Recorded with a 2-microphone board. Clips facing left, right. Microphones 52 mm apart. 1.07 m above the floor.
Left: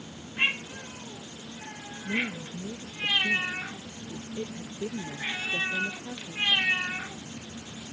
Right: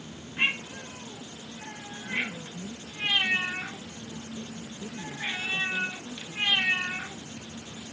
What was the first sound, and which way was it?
A woman speaking, 55° left (ahead or behind).